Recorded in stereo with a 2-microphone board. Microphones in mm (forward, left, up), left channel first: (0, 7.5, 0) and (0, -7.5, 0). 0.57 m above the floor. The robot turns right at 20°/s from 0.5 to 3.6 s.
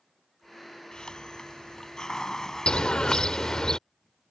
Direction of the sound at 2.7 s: 80° left.